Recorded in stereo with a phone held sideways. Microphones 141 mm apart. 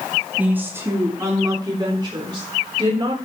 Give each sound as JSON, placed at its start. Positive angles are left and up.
{"t": 0.4, "sound": "a woman speaking", "side_deg": -10, "distance_m": 2.0}